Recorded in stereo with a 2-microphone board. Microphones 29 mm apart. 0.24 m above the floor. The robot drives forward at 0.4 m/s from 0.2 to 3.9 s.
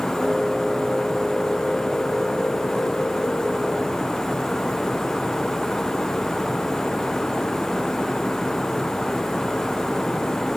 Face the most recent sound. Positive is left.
No sound to turn to.